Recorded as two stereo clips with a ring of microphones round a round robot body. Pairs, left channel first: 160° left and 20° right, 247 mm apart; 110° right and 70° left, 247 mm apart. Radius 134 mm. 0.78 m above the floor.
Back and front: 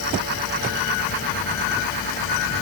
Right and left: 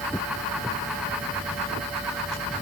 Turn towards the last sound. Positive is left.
No sound to turn to.